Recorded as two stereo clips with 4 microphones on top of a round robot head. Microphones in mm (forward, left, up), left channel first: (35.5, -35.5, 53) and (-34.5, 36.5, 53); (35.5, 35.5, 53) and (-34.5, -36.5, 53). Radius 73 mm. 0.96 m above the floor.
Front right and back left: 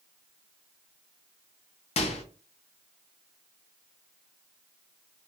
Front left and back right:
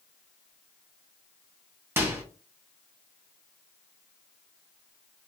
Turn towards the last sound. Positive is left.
turn(degrees=-65)